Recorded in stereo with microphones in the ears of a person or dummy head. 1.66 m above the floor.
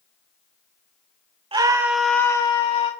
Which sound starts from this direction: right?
A scream, at 1.5 s.